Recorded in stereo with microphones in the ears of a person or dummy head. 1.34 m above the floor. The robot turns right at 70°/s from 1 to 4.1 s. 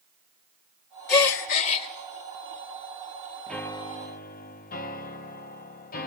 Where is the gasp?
100° left, 1.2 m; by 1.9 s 155° left, 1.2 m.